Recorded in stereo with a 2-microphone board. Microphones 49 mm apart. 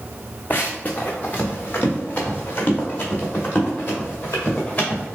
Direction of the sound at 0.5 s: 35° left (ahead or behind).